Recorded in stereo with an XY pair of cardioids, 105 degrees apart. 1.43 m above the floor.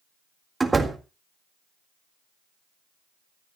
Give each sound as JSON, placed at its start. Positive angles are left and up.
{"t": 0.6, "sound": "a door slam", "azimuth_deg": -20, "distance_m": 2.0}